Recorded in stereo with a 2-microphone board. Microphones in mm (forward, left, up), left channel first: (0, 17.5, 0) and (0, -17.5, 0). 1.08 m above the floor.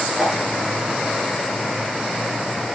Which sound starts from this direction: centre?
A whoosh, at 0.2 s.